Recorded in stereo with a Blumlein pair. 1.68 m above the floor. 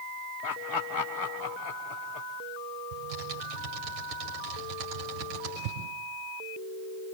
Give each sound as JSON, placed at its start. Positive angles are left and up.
{"t": 0.4, "sound": "laughter", "azimuth_deg": 25, "distance_m": 1.3}
{"t": 2.9, "sound": "typing on a keyboard", "azimuth_deg": -40, "distance_m": 5.5}